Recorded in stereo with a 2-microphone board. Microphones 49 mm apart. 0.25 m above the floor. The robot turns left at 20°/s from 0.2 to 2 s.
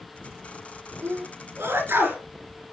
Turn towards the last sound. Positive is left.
turn(degrees=-45)  # may be behind; listen again after turning